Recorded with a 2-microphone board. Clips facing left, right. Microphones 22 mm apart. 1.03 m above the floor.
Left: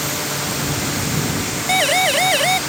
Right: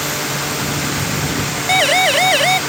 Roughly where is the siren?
Centre.